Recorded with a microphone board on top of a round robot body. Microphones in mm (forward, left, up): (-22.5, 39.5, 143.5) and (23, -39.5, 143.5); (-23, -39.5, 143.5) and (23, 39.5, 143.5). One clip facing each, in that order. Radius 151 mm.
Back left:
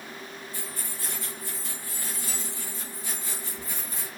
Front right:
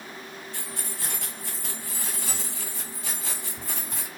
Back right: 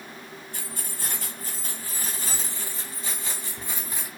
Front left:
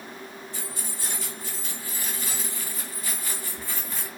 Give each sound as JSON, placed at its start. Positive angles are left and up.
{"t": 0.5, "sound": "keys jangling", "azimuth_deg": -80, "distance_m": 3.0}